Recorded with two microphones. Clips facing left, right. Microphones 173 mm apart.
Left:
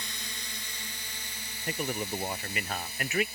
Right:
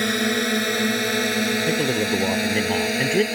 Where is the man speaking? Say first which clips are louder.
Right 12 dB; 35° right (ahead or behind).